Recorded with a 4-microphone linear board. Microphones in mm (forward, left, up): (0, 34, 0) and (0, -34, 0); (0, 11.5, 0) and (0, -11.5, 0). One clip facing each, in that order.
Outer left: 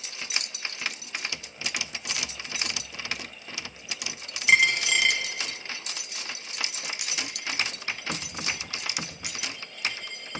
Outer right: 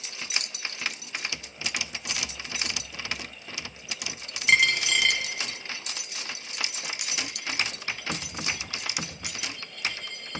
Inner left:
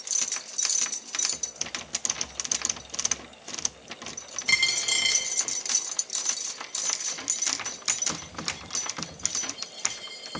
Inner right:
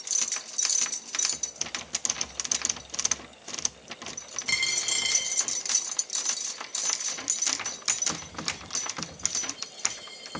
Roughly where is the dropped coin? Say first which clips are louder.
Outer left 1 dB, inner left 4 dB; centre.